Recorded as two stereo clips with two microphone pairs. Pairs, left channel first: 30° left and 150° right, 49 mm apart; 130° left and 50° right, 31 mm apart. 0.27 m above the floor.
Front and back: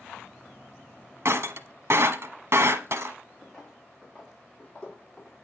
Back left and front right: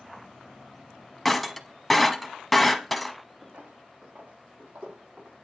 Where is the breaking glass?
145° right, 0.8 m.